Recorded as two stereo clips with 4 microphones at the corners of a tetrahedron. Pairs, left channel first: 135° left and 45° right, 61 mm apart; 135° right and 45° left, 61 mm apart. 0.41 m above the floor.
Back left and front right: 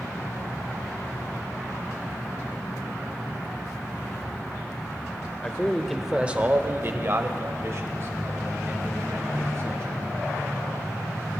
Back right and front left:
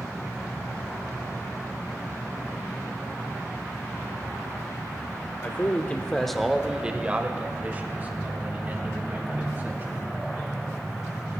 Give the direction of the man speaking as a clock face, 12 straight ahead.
6 o'clock.